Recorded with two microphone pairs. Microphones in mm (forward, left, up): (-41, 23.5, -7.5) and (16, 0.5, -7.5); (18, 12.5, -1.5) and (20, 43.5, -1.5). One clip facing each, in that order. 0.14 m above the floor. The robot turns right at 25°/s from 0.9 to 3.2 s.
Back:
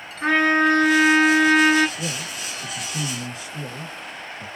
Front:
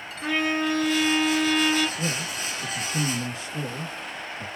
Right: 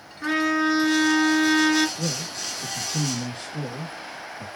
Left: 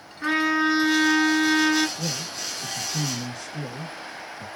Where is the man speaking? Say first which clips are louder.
Front 1 dB, right 1 dB; 95° right, 1.8 m; by 4.5 s 65° right, 1.8 m.